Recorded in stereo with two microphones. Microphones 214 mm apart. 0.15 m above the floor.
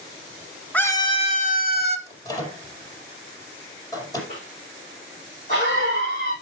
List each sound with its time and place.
0.7 s a scream: 5° left (ahead or behind), 1.2 m; by 2.0 s 50° left (ahead or behind), 1.9 m
2.1 s a microwave: 15° left (ahead or behind), 4.5 m
4.3 s a cough: 40° left (ahead or behind), 6.5 m